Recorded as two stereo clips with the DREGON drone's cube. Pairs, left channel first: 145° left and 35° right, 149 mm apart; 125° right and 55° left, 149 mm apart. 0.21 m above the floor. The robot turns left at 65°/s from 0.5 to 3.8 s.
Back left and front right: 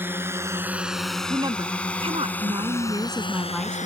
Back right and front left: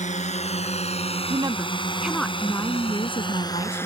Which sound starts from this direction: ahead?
A woman speaking, at 1.3 s.